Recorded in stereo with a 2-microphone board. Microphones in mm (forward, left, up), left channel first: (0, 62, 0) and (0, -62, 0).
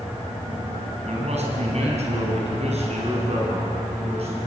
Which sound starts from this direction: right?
A man speaking, at 1.1 s.